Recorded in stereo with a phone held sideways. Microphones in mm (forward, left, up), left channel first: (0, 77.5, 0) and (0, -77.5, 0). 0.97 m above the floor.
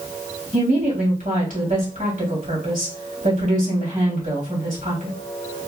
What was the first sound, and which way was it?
A woman speaking, 60° right (ahead or behind).